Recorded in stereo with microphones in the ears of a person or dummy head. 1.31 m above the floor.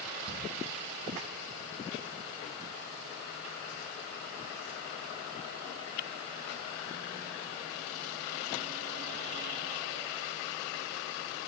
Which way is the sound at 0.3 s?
40° right (ahead or behind).